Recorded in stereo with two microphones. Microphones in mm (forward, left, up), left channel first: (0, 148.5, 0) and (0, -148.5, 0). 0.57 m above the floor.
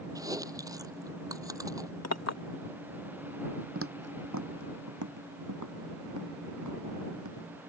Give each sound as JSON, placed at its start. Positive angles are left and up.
{"t": 0.1, "sound": "chewing", "side_deg": -10}
{"t": 2.0, "sound": "a clink", "side_deg": 60}
{"t": 3.8, "sound": "footsteps", "side_deg": -45}